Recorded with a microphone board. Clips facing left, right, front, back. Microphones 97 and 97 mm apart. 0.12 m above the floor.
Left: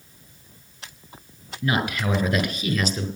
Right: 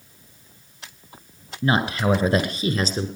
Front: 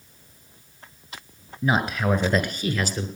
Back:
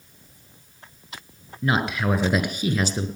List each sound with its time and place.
1.6 s a man speaking: 75° right, 1.6 m; by 3.1 s 125° right, 1.8 m